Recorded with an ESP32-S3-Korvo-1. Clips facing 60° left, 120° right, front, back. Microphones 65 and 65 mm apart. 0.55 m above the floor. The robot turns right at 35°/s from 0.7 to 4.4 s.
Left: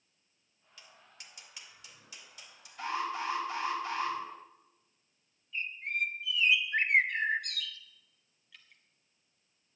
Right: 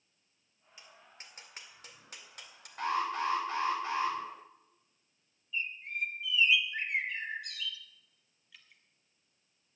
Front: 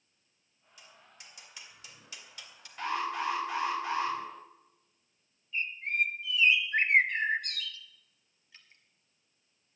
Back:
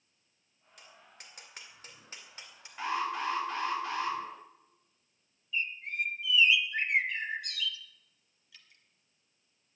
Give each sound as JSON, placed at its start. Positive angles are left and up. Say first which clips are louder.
{"t": 0.8, "sound": "tapping", "louder": "right 1 dB, back 1 dB", "azimuth_deg": 175, "distance_m": 1.8}
{"t": 2.8, "sound": "an alarm", "louder": "right 3 dB, even", "azimuth_deg": -105, "distance_m": 3.5}
{"t": 5.5, "sound": "a bird", "louder": "left 2 dB, front 3 dB", "azimuth_deg": 35, "distance_m": 0.6}
{"t": 8.5, "sound": "dripping", "louder": "left 1 dB, front 1 dB", "azimuth_deg": -35, "distance_m": 1.5}